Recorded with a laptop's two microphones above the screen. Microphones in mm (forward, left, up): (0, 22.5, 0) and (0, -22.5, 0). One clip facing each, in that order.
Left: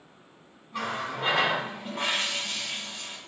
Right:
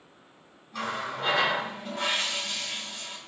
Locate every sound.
0.7 s a running tap: 15° left (ahead or behind), 0.8 m